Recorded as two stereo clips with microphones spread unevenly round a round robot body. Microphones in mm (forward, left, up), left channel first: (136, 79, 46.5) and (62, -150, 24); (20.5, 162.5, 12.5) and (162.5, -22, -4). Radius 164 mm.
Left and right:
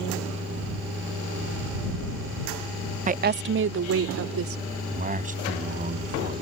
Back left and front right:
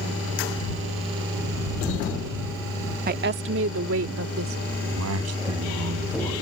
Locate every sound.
3.1 s a woman speaking: 70° right; by 4.6 s 90° right
4.7 s a man speaking: 50° right